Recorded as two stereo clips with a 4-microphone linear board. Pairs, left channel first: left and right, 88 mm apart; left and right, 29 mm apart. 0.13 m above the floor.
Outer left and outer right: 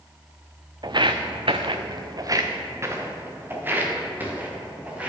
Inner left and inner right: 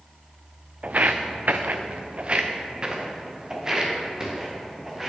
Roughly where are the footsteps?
Right.